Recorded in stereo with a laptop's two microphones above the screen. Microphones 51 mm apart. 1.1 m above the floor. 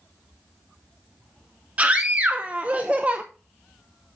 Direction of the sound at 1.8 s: 25° right (ahead or behind).